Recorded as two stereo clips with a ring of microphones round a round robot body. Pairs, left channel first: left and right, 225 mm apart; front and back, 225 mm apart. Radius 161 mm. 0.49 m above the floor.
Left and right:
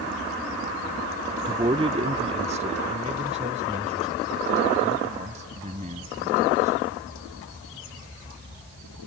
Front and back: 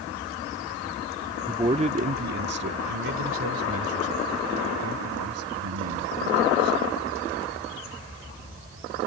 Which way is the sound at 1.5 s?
125° right.